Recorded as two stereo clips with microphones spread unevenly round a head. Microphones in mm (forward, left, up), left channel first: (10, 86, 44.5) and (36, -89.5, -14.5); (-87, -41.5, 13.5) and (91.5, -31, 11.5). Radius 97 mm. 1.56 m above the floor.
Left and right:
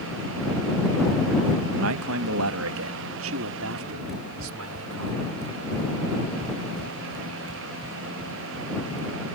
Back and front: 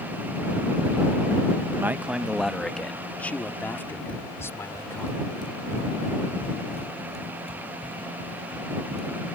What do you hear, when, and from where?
1.8 s a man speaking: 75° right; by 5.1 s 100° right
4.1 s running footsteps: 115° left; by 9.1 s 120° right